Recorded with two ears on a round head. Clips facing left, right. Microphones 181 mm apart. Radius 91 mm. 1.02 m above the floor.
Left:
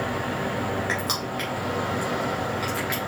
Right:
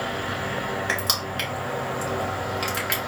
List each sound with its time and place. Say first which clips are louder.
0.9 s crushing: left 1 dB; 40° right (ahead or behind), 2.5 m